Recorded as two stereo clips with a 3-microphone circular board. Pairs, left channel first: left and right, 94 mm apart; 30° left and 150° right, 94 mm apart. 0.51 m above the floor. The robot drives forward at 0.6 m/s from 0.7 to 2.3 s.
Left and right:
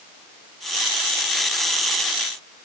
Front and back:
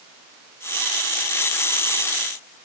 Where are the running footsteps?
No running footsteps in this recording.